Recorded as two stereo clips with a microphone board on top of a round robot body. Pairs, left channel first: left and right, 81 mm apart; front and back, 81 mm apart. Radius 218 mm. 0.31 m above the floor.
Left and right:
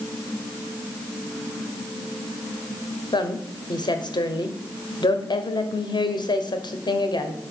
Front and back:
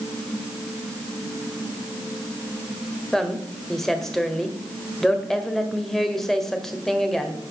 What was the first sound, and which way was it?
A woman speaking, 85° left.